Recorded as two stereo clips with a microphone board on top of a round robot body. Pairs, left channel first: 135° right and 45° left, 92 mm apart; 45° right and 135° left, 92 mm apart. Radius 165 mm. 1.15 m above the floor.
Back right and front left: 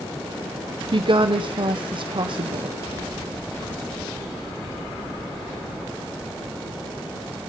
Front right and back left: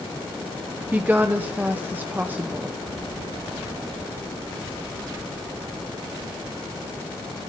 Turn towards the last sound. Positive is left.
turn(degrees=65)